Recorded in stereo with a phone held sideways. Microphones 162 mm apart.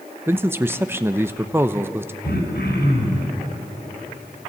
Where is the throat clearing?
85° left, 4 m.